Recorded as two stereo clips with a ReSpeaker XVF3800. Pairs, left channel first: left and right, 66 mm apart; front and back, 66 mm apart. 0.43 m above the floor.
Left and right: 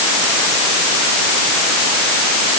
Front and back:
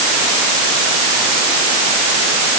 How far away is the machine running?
No machine running in this recording.